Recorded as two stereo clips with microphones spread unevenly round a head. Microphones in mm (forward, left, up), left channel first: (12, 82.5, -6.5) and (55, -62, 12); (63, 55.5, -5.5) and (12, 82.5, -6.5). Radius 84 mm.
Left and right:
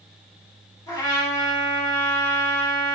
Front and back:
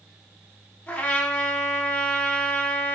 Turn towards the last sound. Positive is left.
turn(degrees=40)